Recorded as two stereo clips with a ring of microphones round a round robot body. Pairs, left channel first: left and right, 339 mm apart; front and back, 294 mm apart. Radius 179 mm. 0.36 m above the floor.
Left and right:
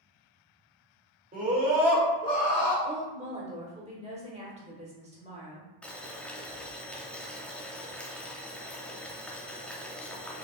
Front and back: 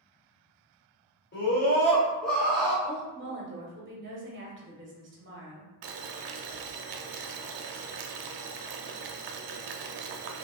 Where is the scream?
35° right, 1.8 m; by 2.7 s 120° left, 1.6 m.